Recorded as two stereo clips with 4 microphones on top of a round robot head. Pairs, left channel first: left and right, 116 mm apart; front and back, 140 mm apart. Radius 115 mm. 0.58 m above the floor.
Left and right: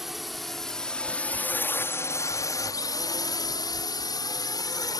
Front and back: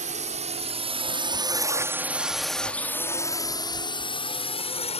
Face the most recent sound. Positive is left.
turn(degrees=35)